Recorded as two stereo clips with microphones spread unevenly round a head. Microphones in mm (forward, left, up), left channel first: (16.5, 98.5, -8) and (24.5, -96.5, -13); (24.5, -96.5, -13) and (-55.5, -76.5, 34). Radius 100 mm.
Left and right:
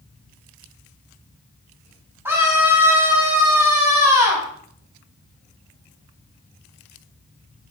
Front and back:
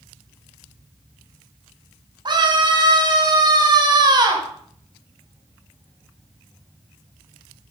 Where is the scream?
165° right, 7.5 m.